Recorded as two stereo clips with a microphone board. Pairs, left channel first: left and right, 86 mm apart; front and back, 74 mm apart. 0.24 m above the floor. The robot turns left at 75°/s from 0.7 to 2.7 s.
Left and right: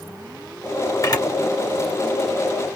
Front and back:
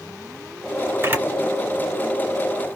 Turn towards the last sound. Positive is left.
turn(degrees=5)